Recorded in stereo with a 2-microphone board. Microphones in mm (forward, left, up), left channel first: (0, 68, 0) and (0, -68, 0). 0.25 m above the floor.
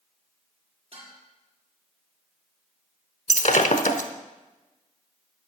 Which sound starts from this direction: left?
Breaking glass, at 3.3 s.